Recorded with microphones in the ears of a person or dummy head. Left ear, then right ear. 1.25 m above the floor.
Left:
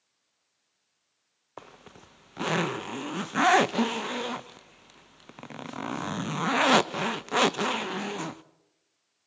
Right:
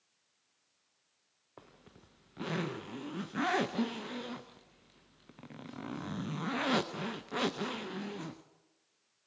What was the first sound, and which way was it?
A zipper, 30° left (ahead or behind).